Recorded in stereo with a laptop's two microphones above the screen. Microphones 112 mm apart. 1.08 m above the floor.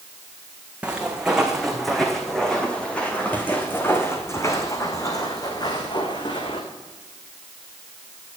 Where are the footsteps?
10° right (ahead or behind), 3.5 m; by 6.6 s 45° left (ahead or behind), 3.5 m.